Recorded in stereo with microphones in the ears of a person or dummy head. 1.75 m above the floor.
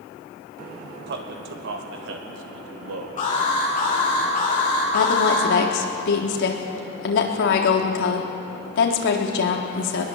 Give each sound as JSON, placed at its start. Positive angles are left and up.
{"t": 1.1, "sound": "a man speaking", "side_deg": -60, "distance_m": 2.5}
{"t": 3.2, "sound": "an alarm", "side_deg": 40, "distance_m": 9.5}
{"t": 4.9, "sound": "a woman speaking", "side_deg": 65, "distance_m": 3.5}